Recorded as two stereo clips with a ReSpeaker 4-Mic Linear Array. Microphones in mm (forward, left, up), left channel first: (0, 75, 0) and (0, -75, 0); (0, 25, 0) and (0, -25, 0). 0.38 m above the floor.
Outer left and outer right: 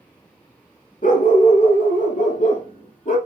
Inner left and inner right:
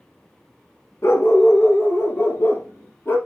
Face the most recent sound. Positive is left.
turn(degrees=55)  # may be behind; listen again after turning